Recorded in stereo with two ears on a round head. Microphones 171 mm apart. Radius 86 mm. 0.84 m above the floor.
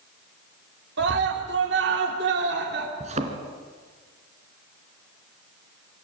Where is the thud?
35° right (ahead or behind), 2 m.